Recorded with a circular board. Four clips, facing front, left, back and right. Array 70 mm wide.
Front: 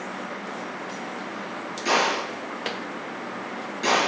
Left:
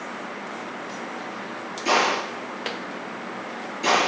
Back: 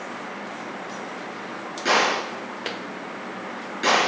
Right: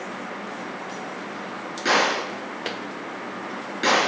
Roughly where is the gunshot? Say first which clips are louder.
Even, back 2 dB; behind right.